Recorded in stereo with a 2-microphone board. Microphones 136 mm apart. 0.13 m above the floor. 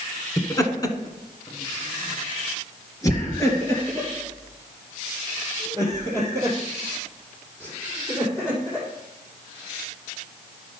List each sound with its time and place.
0.4 s laughter: 25° left (ahead or behind), 1.1 m; by 8.8 s 15° left (ahead or behind), 4.5 m